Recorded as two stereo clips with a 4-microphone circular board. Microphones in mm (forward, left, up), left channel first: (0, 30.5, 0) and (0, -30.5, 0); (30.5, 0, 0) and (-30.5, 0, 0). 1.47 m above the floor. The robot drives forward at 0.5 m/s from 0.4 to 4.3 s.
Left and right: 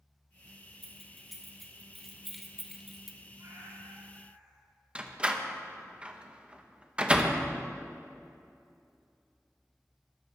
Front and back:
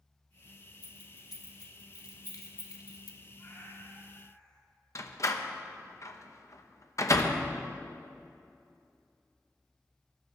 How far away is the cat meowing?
About 5 m.